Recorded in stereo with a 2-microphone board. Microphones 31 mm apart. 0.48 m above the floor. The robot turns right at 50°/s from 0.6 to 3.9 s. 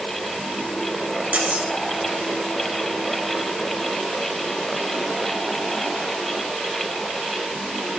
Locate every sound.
1.3 s cutlery clinking: 75° right (ahead or behind), 1.1 m; by 1.7 s 70° right (ahead or behind), 1.1 m